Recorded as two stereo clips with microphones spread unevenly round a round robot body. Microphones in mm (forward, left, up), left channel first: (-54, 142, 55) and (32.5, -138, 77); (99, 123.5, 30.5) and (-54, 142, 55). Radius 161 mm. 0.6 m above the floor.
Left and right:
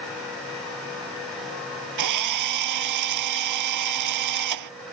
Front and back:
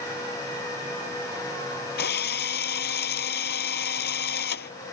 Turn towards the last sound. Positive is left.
turn(degrees=-45)